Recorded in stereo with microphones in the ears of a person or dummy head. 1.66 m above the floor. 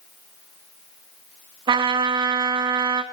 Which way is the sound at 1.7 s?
25° right (ahead or behind).